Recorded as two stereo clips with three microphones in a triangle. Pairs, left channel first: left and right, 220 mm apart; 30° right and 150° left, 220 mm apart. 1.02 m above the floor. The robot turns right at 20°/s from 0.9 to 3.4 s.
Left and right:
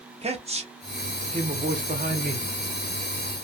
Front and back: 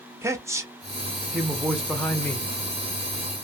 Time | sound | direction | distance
0.2 | a man speaking | 135° right | 0.7 m